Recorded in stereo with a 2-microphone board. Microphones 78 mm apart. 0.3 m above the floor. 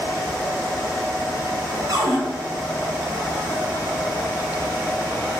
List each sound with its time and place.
1.9 s a cupboard door: 60° right (ahead or behind), 1.3 m